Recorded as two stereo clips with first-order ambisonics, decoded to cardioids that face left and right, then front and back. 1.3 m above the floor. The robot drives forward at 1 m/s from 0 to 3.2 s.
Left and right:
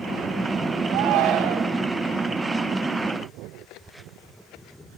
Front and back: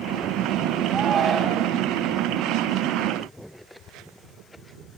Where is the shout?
110° right, 1.5 m; by 1.8 s 135° right, 2 m.